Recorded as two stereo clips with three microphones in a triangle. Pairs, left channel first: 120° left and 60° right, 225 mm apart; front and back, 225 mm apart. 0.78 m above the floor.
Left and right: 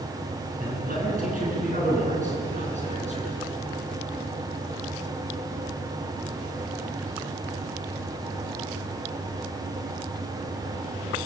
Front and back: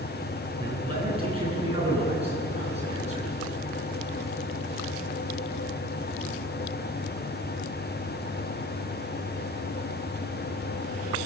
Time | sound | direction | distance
0.6 | a man speaking | 110° right | 10 m